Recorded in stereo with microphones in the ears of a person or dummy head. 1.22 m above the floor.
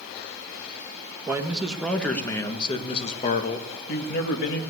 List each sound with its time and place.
1.3 s a man speaking: 10° right (ahead or behind), 1.7 m; by 4.6 s 65° left (ahead or behind), 2 m